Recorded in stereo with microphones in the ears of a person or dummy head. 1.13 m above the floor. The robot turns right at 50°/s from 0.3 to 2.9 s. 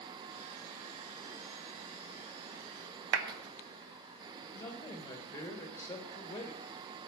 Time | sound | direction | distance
3.1 | a clap | 70° right (ahead or behind) | 0.8 m
4.5 | a man speaking | 15° left (ahead or behind) | 1.3 m